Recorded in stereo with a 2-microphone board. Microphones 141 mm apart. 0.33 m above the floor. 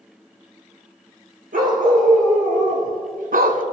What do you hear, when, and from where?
1.5 s a dog barking: 75° right (ahead or behind), 2.5 m; by 3.6 s 70° right (ahead or behind), 0.7 m